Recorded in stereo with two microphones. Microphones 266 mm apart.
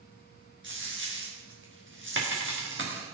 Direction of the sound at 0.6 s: 45° right (ahead or behind).